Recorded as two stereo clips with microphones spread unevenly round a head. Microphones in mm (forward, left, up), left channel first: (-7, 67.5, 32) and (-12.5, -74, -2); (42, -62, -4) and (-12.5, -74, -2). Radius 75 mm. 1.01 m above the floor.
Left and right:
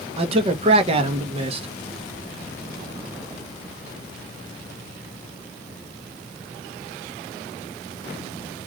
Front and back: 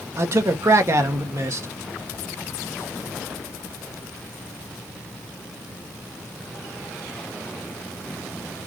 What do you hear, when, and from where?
0.2 s a man speaking: 135° right, 1.4 m